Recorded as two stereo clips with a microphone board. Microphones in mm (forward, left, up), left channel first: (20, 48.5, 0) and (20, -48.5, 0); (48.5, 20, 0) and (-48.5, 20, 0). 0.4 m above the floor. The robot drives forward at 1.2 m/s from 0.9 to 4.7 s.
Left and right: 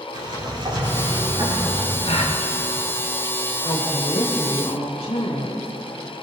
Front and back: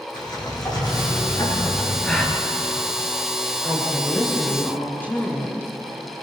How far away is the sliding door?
About 9 m.